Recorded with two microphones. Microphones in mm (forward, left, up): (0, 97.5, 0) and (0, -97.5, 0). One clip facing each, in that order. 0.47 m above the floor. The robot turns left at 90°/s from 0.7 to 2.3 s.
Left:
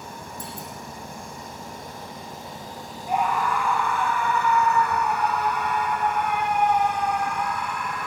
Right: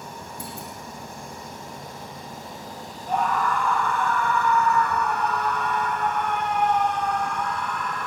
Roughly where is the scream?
Centre.